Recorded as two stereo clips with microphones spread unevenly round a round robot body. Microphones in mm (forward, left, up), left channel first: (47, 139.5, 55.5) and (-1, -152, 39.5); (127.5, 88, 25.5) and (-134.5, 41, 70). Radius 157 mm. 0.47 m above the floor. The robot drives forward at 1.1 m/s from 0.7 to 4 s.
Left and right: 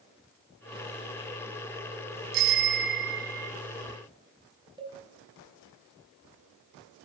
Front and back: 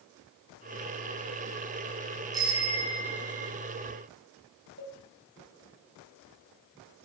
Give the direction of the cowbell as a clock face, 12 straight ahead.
6 o'clock.